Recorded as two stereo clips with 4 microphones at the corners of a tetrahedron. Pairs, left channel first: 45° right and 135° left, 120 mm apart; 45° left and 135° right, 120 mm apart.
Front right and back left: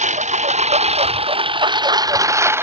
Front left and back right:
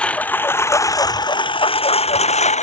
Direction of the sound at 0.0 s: 125° left.